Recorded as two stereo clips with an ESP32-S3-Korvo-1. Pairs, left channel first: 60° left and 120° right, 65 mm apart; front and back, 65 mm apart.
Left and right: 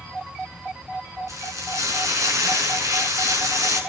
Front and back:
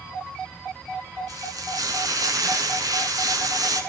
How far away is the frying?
About 5.5 m.